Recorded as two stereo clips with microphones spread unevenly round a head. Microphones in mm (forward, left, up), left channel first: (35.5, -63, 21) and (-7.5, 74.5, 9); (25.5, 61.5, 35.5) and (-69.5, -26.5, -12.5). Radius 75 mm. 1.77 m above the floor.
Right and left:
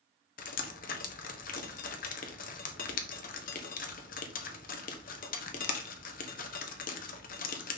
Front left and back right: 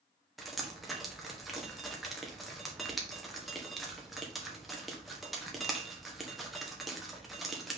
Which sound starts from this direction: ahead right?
Dripping, at 0.4 s.